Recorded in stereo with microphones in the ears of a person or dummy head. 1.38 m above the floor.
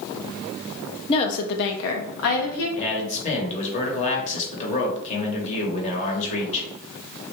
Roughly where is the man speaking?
Left.